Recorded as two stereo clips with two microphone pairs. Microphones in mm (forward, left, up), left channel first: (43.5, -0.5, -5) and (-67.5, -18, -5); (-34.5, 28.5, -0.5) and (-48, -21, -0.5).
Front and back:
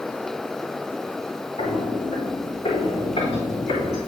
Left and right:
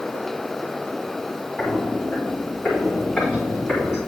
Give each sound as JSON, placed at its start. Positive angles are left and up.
{"t": 1.6, "sound": "footsteps", "azimuth_deg": 0, "distance_m": 4.0}